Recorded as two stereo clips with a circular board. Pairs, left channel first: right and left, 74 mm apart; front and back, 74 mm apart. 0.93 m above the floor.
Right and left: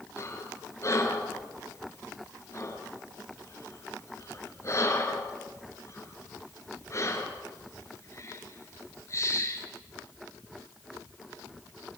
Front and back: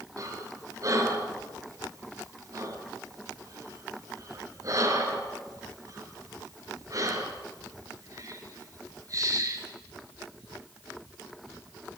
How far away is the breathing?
About 4 m.